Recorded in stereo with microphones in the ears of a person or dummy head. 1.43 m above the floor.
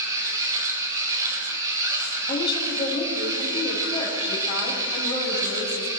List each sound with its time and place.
0.0 s a machine running: 20° right (ahead or behind), 4.5 m
2.3 s a woman speaking: 25° left (ahead or behind), 8 m